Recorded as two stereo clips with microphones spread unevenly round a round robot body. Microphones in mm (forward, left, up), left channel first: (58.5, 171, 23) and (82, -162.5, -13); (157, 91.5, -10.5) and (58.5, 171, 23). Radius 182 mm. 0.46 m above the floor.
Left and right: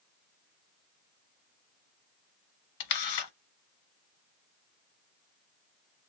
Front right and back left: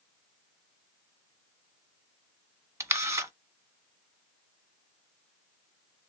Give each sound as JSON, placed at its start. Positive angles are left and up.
{"t": 2.8, "sound": "a camera shutter", "azimuth_deg": 70, "distance_m": 1.2}